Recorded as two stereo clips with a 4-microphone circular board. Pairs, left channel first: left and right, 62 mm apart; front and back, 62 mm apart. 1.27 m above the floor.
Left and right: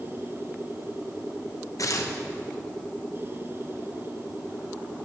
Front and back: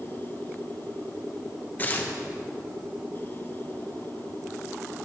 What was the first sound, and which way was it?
Tearing paper, 60° left.